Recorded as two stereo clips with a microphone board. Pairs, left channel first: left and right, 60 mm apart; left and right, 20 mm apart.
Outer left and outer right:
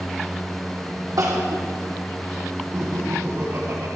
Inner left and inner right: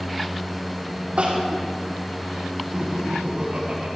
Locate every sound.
1.2 s crying: 85° right, 3.5 m
2.7 s laughter: 55° right (ahead or behind), 3 m